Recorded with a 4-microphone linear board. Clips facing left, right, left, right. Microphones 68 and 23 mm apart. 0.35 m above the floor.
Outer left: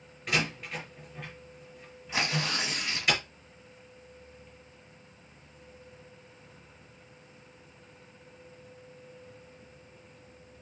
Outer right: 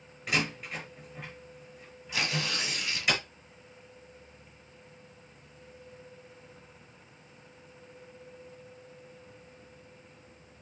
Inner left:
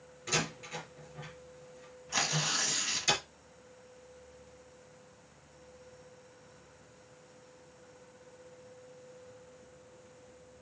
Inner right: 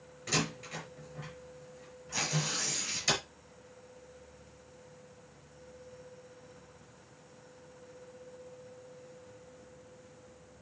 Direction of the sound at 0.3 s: Centre (ahead or behind).